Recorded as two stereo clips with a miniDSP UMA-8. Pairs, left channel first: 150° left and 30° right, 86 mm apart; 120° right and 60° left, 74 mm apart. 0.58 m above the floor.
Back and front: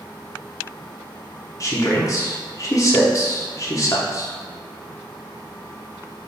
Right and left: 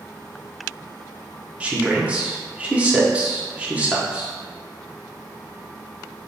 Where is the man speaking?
125° left, 1.0 m.